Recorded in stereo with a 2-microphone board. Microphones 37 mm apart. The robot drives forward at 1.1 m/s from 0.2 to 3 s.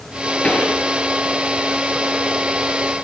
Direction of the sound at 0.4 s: 35° left (ahead or behind).